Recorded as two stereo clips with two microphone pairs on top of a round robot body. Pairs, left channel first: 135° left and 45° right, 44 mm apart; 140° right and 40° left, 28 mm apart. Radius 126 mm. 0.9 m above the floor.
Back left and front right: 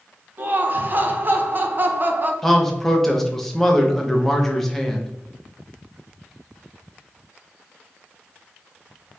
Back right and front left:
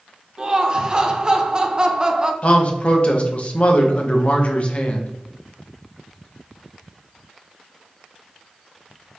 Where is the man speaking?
155° right, 1.1 m.